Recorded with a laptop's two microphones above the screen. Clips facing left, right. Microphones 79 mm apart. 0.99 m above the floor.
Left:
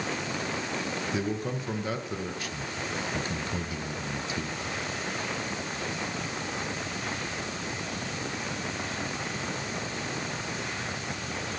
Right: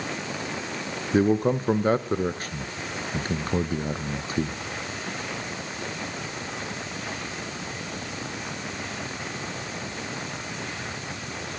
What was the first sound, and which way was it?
A man speaking, 45° right (ahead or behind).